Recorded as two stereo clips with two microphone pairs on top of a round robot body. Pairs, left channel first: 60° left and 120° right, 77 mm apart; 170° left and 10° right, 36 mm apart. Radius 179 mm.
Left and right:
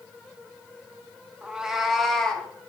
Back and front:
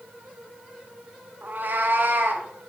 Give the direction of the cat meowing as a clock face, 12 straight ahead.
2 o'clock.